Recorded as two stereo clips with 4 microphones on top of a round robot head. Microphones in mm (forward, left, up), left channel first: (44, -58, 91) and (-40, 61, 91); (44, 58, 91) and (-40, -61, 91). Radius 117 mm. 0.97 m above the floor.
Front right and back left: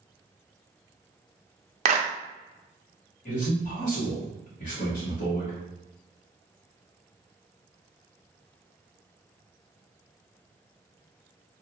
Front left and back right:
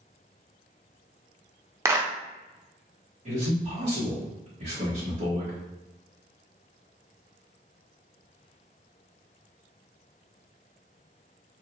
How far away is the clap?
About 0.6 m.